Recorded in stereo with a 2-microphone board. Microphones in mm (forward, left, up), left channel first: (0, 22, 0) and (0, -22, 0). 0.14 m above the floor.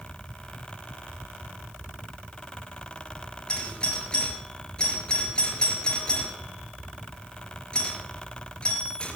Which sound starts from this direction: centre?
A doorbell, at 3.5 s.